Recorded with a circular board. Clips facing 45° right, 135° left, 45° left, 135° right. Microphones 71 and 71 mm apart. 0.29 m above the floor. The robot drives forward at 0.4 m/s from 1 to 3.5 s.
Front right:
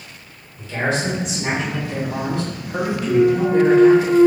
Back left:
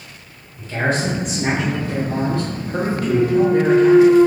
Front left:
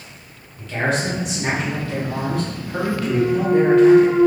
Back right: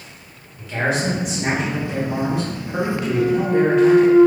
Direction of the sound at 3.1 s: 170° left.